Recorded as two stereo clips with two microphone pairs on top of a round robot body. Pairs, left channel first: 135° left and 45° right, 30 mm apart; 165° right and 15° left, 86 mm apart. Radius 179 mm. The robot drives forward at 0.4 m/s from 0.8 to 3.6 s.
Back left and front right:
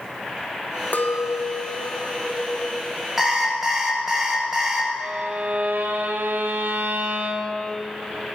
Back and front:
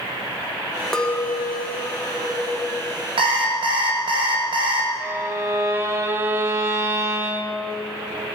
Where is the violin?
45° right, 0.9 m.